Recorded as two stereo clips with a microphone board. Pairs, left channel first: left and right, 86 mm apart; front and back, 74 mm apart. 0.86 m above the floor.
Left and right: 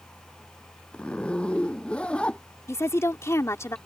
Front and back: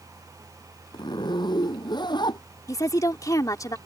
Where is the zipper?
15° left.